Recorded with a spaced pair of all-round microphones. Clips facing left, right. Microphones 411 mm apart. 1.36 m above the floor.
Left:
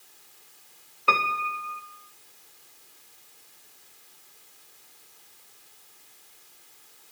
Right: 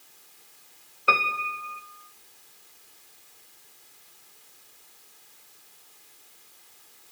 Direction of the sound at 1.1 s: 5° left (ahead or behind).